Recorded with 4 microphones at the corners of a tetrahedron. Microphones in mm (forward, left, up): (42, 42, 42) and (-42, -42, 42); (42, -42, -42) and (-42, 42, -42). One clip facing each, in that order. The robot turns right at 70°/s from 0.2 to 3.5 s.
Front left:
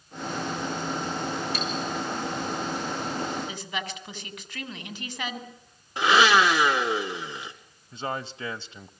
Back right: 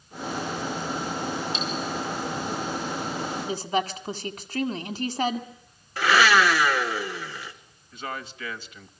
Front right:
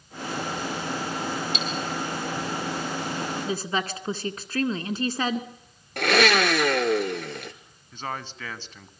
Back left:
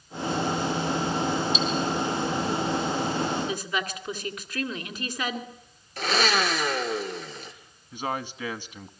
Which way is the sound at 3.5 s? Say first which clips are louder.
Back right 8 dB, front right 2 dB; 100° right.